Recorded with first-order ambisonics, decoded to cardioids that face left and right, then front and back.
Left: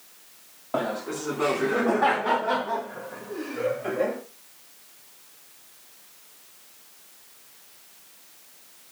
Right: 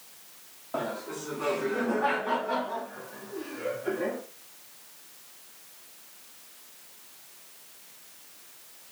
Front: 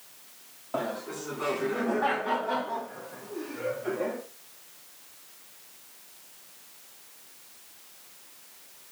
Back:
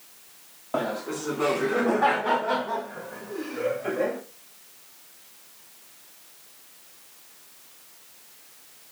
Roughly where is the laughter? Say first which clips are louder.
Left 5 dB, back 4 dB; behind left.